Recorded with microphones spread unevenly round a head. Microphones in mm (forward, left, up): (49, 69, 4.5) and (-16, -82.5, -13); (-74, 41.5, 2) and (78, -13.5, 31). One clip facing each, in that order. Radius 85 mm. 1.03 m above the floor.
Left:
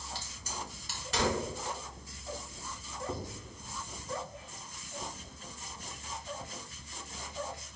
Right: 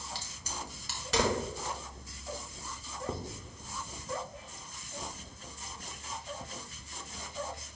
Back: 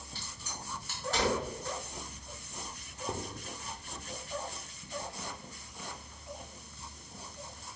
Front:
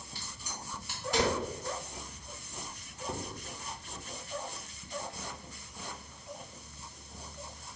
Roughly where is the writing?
Behind right.